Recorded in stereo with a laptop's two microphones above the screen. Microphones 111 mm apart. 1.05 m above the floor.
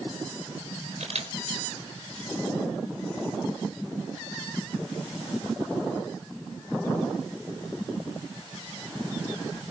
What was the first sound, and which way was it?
A camera shutter, 85° right.